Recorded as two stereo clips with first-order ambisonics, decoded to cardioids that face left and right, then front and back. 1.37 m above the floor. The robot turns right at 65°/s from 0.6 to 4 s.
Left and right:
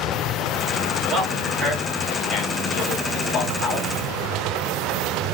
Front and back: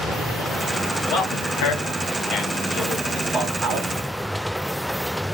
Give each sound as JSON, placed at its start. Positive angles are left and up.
{"t": 1.1, "sound": "a man speaking", "azimuth_deg": -35, "distance_m": 1.8}